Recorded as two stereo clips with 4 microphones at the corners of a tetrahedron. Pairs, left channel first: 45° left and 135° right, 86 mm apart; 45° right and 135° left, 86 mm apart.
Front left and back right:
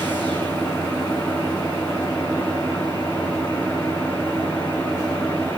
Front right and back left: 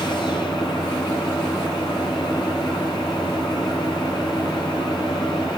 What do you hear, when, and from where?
0.0 s an engine running: 20° right, 7 m